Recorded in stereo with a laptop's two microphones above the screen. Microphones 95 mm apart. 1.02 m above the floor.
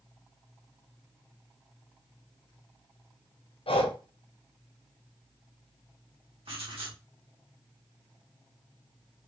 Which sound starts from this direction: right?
Writing, at 6.5 s.